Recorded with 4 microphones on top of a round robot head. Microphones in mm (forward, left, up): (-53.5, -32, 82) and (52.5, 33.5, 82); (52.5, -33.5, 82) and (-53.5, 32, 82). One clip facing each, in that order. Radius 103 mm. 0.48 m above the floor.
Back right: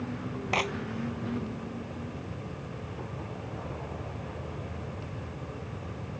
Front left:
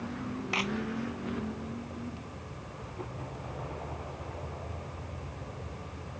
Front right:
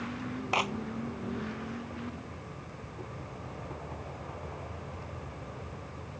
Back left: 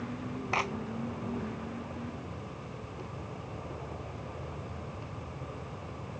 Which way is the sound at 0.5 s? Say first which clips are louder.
Back right 5 dB, front right 2 dB; 105° right.